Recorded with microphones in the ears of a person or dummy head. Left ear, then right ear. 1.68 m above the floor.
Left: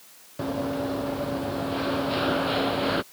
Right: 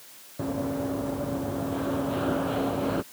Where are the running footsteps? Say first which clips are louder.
Left 2 dB; 80° left; by 3.0 s 70° left (ahead or behind).